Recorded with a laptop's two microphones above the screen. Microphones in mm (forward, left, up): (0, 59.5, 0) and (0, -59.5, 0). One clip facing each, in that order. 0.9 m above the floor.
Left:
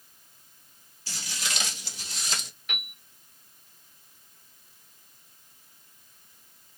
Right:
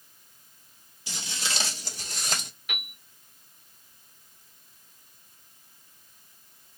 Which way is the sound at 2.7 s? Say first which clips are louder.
Even; 5° right (ahead or behind).